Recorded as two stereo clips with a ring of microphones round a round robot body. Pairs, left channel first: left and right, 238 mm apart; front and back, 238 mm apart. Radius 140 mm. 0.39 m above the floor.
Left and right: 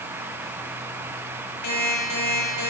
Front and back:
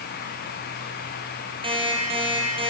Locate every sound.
1.6 s an alarm clock: 110° left, 6.5 m